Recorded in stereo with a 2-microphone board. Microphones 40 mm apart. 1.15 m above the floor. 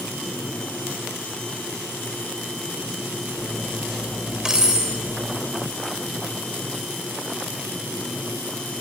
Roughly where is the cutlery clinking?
Centre.